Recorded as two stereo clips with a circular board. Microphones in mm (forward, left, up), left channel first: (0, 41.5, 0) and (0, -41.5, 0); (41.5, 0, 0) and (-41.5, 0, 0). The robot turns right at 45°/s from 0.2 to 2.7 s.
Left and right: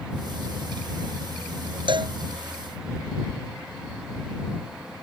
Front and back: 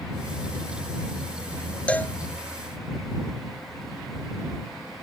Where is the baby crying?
No baby crying in this recording.